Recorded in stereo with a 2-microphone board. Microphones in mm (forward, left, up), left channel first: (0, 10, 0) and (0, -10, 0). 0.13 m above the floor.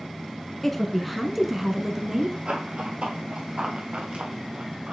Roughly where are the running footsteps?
Right.